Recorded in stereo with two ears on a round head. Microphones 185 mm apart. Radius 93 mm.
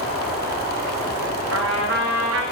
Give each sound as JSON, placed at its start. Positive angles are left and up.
{"t": 1.5, "sound": "a trumpet", "side_deg": -60, "distance_m": 1.5}